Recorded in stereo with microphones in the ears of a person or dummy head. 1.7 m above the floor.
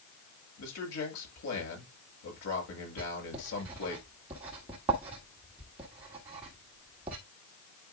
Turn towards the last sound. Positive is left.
turn(degrees=-15)  # may be behind; listen again after turning